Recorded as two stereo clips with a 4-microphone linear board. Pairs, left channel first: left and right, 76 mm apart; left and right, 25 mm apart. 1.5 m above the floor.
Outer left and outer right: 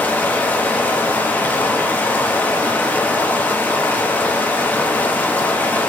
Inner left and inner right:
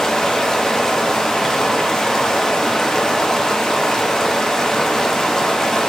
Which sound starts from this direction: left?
Running water, at 0.0 s.